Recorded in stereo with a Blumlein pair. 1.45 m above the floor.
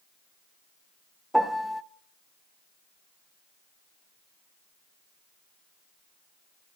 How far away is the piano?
About 0.6 m.